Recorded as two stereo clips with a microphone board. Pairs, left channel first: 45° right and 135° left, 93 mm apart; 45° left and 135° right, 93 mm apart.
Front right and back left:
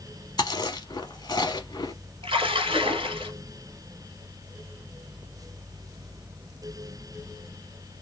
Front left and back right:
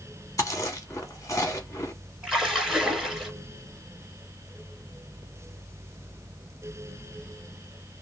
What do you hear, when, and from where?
0.4 s chewing: 5° right, 0.8 m
2.2 s a splash: 140° left, 1.6 m